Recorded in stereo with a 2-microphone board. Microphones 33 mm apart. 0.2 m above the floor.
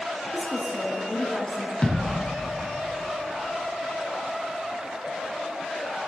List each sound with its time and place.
0.3 s a woman speaking: 20° left (ahead or behind), 2.5 m
1.8 s a thud: 25° left (ahead or behind), 3 m